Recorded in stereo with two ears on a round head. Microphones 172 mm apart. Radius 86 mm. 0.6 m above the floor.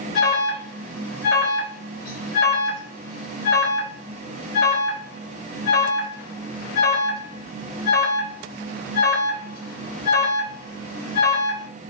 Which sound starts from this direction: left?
An alarm, at 0.1 s.